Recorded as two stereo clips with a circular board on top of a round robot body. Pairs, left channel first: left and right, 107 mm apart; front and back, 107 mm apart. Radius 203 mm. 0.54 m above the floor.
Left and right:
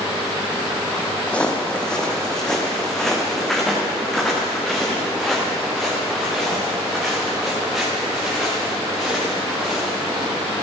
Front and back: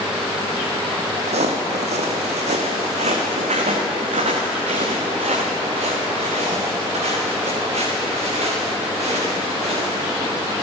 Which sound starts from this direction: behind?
Footsteps, at 1.3 s.